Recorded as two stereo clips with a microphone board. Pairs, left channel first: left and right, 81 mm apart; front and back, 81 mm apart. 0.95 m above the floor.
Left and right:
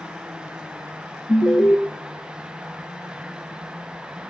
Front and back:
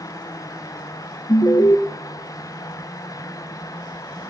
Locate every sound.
1.3 s an alarm: 35° left, 1.2 m